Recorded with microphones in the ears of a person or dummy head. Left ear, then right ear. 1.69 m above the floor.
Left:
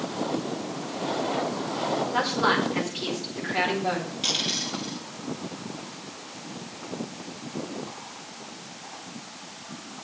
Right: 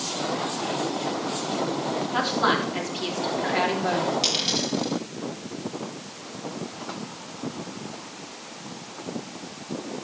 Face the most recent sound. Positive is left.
turn(degrees=-15)  # may be behind; listen again after turning